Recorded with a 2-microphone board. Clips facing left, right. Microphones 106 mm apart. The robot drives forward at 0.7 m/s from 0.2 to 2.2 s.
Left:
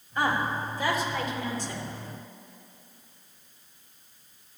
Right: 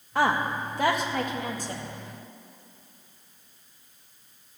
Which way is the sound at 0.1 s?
75° right (ahead or behind).